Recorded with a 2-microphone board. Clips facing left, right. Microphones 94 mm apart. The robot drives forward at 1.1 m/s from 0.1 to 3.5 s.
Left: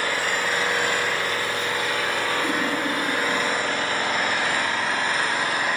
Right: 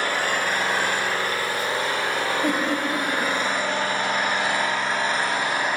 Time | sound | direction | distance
0.0 | an engine running | 55° right (ahead or behind) | 2.5 m
2.4 | a giggle | 70° right (ahead or behind) | 3 m